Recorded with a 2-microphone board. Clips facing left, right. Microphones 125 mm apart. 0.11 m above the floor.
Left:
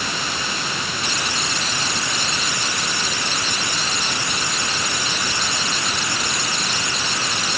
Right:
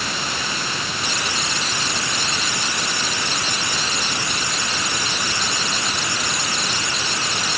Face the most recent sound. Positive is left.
No sound to turn to.